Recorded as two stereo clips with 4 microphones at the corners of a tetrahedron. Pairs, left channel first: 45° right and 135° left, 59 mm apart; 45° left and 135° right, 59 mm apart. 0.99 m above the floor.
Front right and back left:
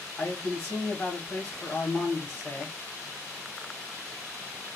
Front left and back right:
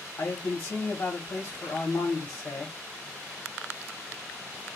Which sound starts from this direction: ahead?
A man speaking, at 0.2 s.